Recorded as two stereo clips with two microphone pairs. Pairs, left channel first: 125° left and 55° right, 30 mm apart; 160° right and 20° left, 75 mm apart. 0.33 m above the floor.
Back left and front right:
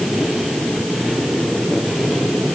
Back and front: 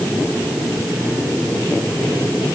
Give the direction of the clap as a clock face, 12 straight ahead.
No clap in this recording.